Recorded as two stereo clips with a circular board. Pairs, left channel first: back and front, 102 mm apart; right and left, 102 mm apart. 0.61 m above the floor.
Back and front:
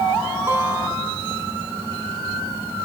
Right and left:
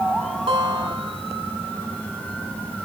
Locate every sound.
0.5 s a guitar: 65° left, 1.7 m